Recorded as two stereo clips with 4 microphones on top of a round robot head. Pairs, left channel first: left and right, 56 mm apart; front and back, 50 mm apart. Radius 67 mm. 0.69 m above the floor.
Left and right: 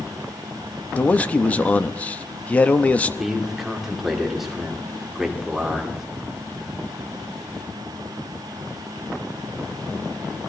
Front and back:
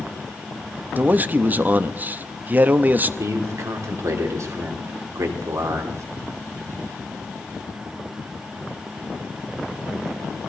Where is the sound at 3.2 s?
175° right, 2.5 m.